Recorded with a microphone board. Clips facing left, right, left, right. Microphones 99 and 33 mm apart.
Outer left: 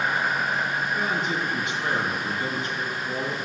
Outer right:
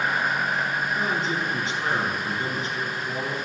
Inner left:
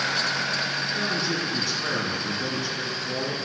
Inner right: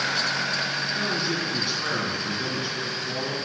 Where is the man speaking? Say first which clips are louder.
Even, even; 30° right (ahead or behind), 4 m.